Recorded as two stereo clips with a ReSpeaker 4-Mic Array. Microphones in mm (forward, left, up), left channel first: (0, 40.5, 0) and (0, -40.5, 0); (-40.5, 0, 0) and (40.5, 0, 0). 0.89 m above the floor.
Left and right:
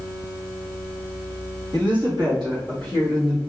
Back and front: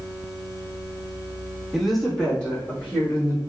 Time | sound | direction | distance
1.7 | a woman speaking | 85° right | 1.2 m